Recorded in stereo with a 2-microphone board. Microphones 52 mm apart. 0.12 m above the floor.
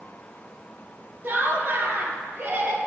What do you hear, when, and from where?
1.2 s laughter: 35° right (ahead or behind), 3.5 m